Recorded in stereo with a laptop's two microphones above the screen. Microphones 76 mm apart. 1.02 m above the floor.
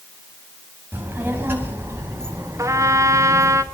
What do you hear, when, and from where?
0.9 s a child speaking: 25° right (ahead or behind), 4.5 m; by 3.6 s 40° right (ahead or behind), 6 m
2.6 s a trumpet: 45° right (ahead or behind), 2.5 m